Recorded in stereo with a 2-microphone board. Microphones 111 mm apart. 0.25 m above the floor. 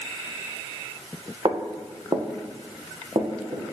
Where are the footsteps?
40° right (ahead or behind), 1.3 m; by 3.6 s 45° right (ahead or behind), 2.5 m.